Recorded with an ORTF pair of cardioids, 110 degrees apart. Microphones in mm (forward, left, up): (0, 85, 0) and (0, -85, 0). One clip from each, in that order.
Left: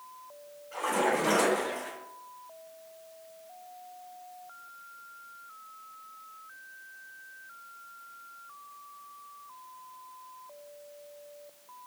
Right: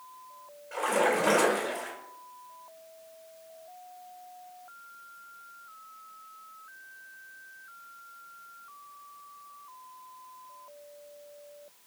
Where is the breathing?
No breathing in this recording.